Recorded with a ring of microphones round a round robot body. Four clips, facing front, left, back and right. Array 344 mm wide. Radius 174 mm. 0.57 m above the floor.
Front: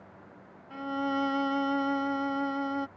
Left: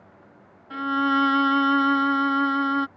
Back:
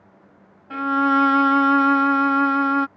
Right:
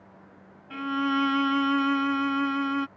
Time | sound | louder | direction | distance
0.7 | a violin | left 4 dB, back 12 dB | 170° left | ?